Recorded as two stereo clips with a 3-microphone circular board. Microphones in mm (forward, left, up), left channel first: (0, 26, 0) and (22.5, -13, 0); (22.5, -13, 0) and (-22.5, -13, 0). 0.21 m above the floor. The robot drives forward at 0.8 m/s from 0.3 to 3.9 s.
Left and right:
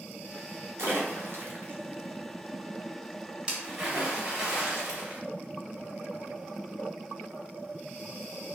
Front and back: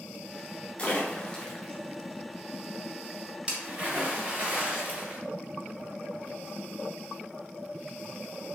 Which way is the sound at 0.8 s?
60° right.